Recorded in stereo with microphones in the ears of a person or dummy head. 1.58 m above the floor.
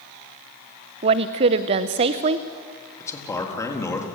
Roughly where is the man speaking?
Centre.